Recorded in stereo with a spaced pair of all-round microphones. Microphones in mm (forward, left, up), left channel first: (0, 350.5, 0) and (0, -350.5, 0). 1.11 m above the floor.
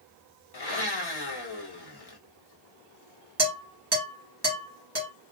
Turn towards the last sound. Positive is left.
turn(degrees=-20)  # may be behind; listen again after turning